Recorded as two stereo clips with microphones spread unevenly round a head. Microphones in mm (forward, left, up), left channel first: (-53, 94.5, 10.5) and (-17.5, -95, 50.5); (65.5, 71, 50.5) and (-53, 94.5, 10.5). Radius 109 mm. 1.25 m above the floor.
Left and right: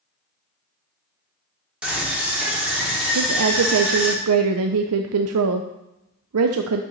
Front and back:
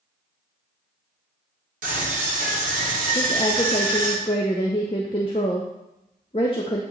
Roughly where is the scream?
Behind.